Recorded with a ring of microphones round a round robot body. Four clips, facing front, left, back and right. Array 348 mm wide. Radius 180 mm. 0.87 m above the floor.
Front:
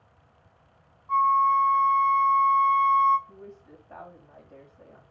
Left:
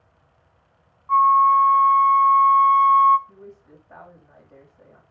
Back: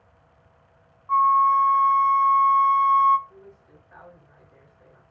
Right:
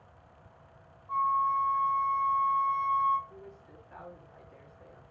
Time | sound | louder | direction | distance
1.1 | a flute | left 13 dB, back 3 dB | 105° left | 1.1 m
3.3 | a woman speaking | left 5 dB, front 3 dB | 45° left | 6 m